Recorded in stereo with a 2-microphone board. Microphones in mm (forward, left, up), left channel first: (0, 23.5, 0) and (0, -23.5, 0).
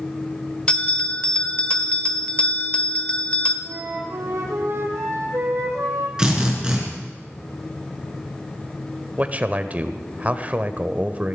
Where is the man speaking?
35° right (ahead or behind), 1.0 m.